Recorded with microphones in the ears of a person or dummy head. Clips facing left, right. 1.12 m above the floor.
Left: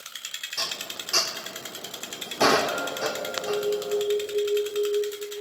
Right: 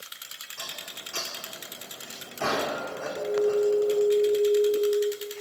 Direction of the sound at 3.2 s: 45° right (ahead or behind).